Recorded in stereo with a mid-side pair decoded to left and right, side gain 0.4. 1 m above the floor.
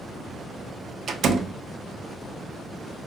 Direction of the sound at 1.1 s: 65° right.